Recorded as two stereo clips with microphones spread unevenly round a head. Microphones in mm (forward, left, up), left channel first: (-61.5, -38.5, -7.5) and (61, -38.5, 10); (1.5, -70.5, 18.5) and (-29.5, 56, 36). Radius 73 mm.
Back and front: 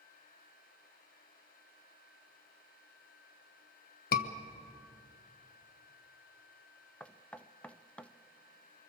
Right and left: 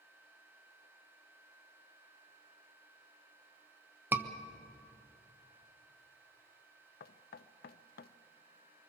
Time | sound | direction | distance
4.1 | a scream | straight behind | 1.3 m
7.0 | knocking | 100° right | 0.6 m